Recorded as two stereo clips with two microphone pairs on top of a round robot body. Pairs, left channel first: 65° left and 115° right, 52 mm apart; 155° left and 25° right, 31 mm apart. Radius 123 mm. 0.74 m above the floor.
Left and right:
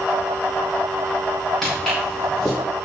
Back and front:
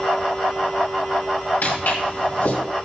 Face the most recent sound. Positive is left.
turn(degrees=150)